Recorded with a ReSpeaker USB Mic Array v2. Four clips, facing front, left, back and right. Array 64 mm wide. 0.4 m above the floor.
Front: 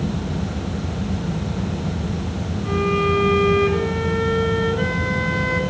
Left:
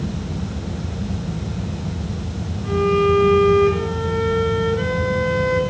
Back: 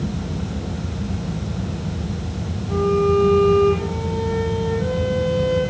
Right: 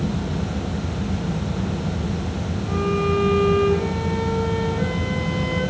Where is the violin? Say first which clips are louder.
Left 6 dB, back 2 dB; 30° left, 5.5 m.